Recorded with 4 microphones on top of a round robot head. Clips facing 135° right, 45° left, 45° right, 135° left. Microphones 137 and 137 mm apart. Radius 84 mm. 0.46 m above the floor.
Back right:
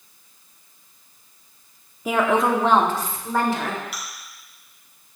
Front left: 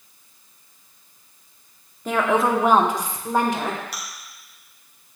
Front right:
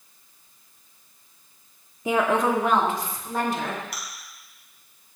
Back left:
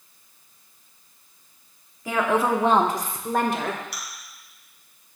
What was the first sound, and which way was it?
A woman speaking, 65° right.